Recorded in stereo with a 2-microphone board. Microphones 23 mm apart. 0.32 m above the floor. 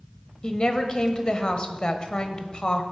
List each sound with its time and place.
0.4 s a woman speaking: 35° left (ahead or behind), 1.3 m